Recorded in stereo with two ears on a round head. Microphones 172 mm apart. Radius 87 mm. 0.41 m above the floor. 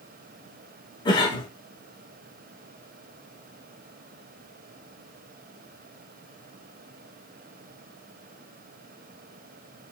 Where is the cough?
25° left (ahead or behind), 1.0 m.